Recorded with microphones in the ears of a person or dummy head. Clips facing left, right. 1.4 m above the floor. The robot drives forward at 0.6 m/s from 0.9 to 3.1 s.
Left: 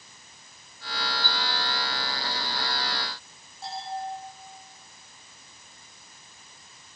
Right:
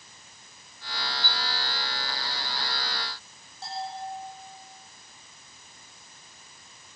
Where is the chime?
80° right, 8 m.